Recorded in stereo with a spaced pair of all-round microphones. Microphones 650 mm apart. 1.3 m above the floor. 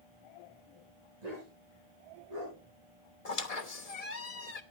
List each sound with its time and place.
1.2 s a dog barking: 80° right, 6.5 m; by 2.6 s 75° right (ahead or behind), 6.5 m
3.2 s a squeak: 65° left (ahead or behind), 1.2 m